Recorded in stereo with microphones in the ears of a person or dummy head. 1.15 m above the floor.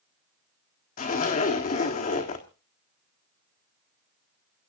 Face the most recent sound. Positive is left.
turn(degrees=40)  # may be behind; listen again after turning